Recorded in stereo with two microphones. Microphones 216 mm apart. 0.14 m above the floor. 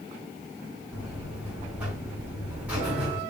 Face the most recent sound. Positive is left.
turn(degrees=-5)  # may be behind; listen again after turning